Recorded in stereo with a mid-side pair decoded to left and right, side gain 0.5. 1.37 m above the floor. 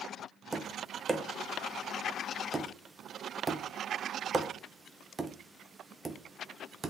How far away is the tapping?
About 1.1 m.